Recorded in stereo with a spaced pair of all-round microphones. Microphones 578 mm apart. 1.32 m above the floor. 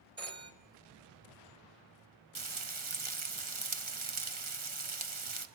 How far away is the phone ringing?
About 1.4 m.